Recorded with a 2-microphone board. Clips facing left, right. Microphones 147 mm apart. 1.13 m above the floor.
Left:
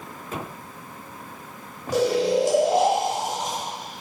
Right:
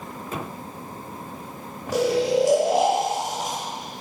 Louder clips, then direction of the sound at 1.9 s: Even; 5° right (ahead or behind).